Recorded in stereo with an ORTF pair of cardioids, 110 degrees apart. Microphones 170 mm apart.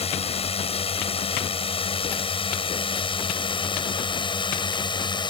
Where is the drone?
35° left; by 5.3 s 25° left.